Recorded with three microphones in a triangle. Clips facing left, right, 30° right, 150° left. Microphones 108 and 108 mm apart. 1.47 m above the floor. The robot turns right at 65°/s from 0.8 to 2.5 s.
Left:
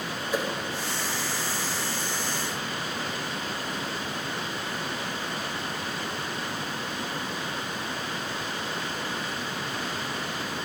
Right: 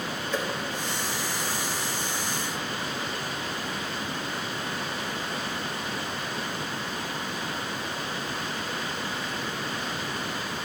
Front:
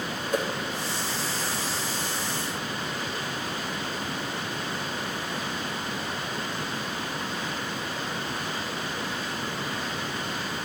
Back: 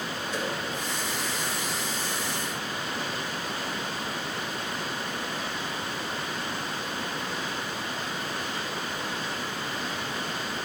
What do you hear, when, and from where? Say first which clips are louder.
0.3 s a whoosh: left 2 dB, front 6 dB; 10° left, 0.6 m